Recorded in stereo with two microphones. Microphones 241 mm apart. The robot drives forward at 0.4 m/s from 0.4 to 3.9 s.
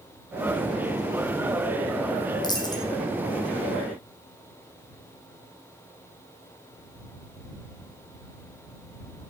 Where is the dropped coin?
15° left (ahead or behind), 1.6 m.